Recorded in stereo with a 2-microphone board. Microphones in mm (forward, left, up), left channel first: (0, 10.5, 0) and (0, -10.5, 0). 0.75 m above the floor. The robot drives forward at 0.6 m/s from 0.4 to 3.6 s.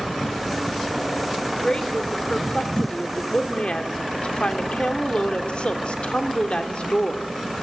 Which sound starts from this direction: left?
A woman speaking, at 1.5 s.